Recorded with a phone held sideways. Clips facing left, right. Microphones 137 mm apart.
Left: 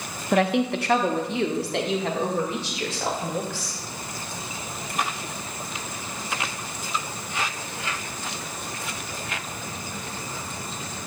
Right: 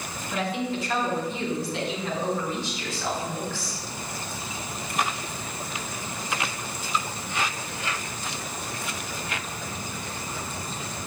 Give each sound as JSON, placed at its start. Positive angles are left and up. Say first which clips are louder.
{"t": 0.3, "sound": "a woman speaking", "louder": "left 7 dB", "side_deg": 65, "distance_m": 0.7}